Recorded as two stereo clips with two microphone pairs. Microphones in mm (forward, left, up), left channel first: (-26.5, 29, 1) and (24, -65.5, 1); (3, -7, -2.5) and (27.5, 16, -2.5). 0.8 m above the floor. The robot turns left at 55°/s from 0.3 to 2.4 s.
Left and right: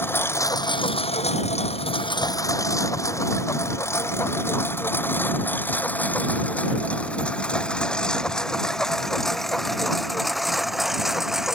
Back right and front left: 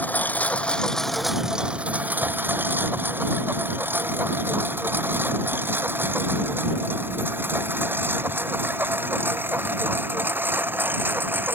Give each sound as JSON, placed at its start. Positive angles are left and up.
{"t": 0.0, "sound": "a lawn mower", "azimuth_deg": -170}